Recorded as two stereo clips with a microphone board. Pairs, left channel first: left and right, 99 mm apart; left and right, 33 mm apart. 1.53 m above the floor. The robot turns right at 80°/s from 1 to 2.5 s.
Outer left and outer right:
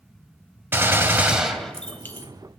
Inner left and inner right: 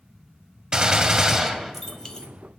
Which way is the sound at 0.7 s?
50° right.